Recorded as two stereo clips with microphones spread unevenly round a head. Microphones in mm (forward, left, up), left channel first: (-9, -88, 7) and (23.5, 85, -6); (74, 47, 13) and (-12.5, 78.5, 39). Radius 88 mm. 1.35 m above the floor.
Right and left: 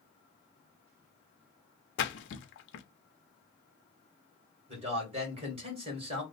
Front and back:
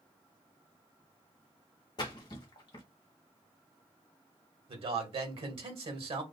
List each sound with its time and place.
2.0 s a splash: 75° right, 0.6 m
4.7 s a man speaking: 135° left, 1.7 m